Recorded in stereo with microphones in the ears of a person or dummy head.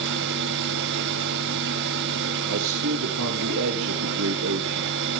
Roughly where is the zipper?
No zipper in this recording.